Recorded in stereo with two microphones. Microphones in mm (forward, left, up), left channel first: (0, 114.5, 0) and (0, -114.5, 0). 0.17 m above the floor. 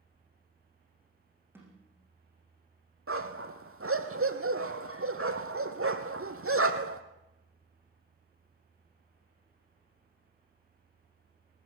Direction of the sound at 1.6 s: 10° right (ahead or behind).